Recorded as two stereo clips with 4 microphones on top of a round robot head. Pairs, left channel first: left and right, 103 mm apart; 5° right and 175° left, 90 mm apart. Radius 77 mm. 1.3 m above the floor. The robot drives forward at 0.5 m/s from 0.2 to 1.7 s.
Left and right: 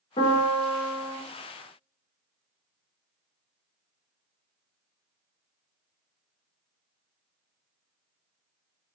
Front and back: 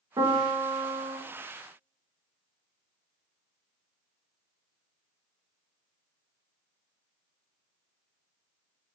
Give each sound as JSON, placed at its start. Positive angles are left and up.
{"t": 0.2, "sound": "a piano", "azimuth_deg": 125, "distance_m": 0.6}